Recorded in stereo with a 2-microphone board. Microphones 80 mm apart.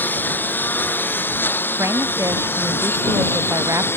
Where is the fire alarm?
No fire alarm in this recording.